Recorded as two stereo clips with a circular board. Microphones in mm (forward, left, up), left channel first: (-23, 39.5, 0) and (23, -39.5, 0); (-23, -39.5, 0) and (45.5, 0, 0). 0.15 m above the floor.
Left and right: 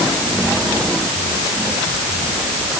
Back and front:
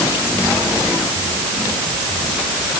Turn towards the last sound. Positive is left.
No sound to turn to.